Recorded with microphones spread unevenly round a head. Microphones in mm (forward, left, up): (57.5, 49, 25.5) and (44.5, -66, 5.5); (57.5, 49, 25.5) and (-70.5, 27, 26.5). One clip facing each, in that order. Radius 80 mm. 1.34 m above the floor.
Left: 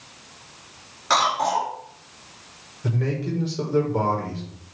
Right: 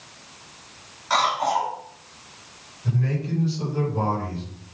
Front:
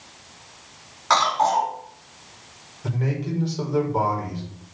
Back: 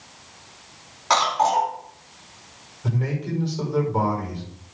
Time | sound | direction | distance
1.1 | a cough | 115° left | 4 m
2.8 | a man speaking | 100° left | 5.5 m